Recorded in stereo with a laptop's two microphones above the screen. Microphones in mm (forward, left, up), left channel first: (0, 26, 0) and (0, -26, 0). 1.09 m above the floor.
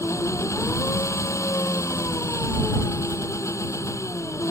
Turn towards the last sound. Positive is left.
turn(degrees=90)